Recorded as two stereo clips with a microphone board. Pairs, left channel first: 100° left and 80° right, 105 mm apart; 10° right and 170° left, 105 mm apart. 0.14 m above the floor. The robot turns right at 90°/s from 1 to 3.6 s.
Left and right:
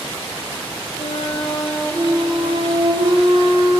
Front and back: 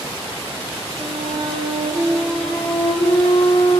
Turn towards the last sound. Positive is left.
turn(degrees=-15)